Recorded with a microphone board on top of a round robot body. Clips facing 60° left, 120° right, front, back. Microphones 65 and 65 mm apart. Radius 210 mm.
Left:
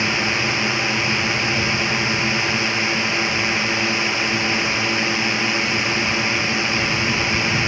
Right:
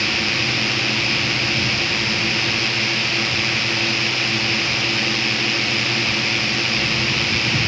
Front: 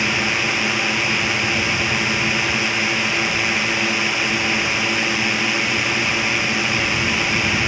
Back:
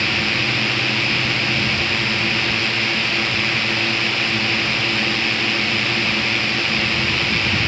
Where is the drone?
55° left.